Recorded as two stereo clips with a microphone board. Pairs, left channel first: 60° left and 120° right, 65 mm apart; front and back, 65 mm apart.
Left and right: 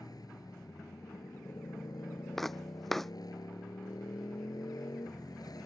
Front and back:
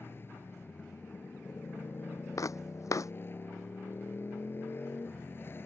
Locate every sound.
0.0 s a motorcycle: 55° left
2.4 s footsteps: 25° right